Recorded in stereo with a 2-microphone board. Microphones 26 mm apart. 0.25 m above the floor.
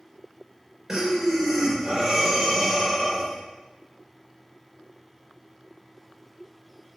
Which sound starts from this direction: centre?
Breathing, at 0.9 s.